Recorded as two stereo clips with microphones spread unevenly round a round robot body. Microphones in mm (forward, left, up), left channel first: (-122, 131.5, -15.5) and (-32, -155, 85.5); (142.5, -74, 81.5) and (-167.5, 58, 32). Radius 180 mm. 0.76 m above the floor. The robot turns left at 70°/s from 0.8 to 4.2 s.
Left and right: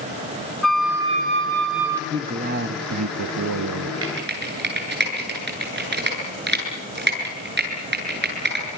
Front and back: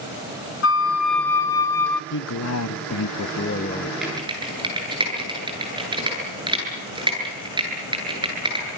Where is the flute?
30° left, 1.2 m; by 2.0 s 55° right, 1.2 m.